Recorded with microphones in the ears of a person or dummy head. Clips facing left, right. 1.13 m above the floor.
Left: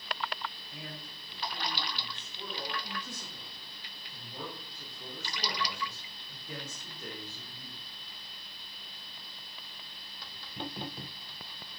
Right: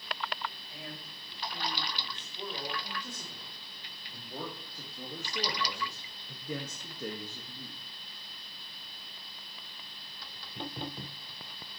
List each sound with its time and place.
0.7 s a man speaking: 10° right (ahead or behind), 5 m; by 7.8 s 55° right (ahead or behind), 1.8 m